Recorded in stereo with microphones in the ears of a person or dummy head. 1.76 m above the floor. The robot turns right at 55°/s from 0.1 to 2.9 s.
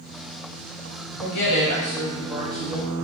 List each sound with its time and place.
1.2 s a woman speaking: 110° left, 1.2 m; by 3.0 s 155° right, 1.2 m